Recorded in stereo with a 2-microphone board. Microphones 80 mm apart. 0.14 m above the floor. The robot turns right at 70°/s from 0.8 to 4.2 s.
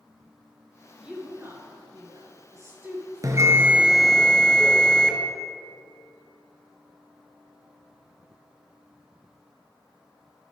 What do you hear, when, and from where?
1.0 s a woman speaking: 10° right (ahead or behind), 2.5 m; by 4.0 s 30° left (ahead or behind), 2.5 m
3.2 s a bell: 55° right, 1.0 m; by 5.1 s 15° left, 1.0 m